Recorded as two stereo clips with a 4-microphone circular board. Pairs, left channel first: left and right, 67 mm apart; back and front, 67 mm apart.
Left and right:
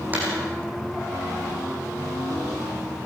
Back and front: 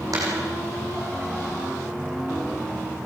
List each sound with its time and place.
0.1 s a dropped coin: 25° right, 5 m